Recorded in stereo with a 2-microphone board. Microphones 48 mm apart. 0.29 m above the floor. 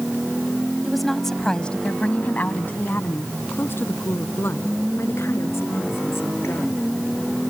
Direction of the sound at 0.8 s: 5° right (ahead or behind).